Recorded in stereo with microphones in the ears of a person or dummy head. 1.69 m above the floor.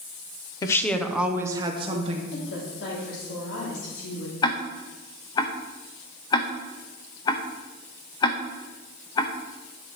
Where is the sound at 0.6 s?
15° left (ahead or behind), 0.9 m; by 2.2 s 45° right (ahead or behind), 1.4 m.